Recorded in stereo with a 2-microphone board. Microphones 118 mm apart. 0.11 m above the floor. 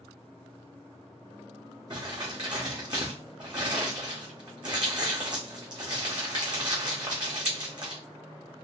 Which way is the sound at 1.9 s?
35° right (ahead or behind).